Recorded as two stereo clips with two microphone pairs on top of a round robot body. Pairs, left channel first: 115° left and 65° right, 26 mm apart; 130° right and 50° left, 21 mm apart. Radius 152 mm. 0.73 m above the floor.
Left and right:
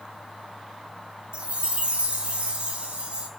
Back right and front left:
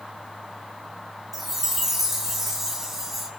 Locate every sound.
1.3 s a chime: 25° right, 2.5 m